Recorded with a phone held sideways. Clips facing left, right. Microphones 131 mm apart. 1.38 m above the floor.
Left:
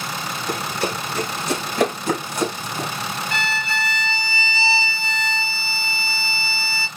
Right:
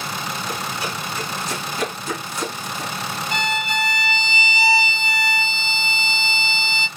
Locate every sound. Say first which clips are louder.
0.5 s running footsteps: left 3 dB; 70° left (ahead or behind), 4.5 m; by 2.9 s 60° left (ahead or behind), 3.5 m
3.3 s a violin: right 3 dB; 20° right (ahead or behind), 0.5 m